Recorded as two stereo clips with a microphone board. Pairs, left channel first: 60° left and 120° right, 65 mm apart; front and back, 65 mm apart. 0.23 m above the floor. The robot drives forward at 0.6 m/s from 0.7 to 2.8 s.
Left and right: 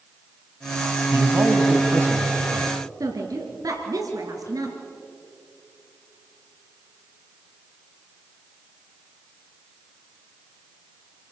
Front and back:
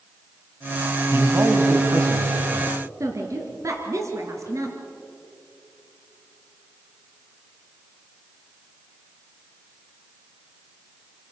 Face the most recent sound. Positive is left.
turn(degrees=-145)